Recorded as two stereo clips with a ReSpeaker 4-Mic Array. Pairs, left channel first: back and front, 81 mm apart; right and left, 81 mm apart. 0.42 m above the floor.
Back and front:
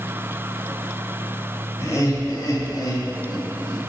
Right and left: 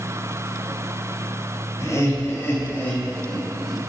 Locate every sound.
1.8 s laughter: 135° right, 1.9 m; by 3.8 s 170° left, 1.5 m